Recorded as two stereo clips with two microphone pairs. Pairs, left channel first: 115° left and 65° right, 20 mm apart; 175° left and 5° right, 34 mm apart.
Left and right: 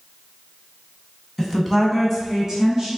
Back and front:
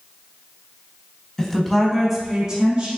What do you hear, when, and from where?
1.4 s a woman speaking: 155° right, 1.1 m; by 2.9 s 35° right, 1.5 m